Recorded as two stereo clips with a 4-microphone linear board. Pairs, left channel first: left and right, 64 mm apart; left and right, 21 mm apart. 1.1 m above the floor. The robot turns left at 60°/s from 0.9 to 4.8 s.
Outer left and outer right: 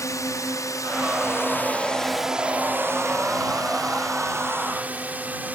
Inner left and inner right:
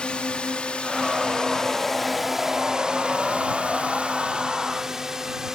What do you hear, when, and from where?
0.0 s a drone: 55° left (ahead or behind); by 5.5 s 25° right (ahead or behind)